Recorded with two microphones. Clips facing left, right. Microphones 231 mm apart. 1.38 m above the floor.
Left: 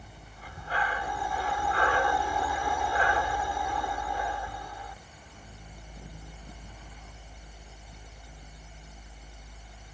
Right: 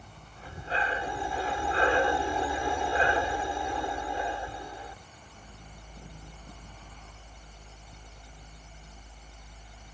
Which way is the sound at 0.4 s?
25° right (ahead or behind).